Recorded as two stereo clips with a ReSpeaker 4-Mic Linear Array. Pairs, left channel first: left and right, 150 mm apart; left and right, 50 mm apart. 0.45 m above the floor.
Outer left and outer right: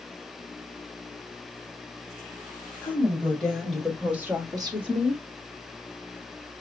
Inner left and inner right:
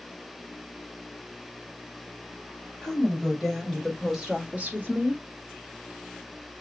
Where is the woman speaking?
10° left (ahead or behind), 3 m; by 5.2 s 45° right (ahead or behind), 1.2 m.